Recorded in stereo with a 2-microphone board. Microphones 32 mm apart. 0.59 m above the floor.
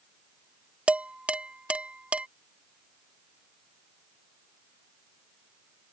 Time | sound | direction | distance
0.9 | dishes clattering | 40° right (ahead or behind) | ?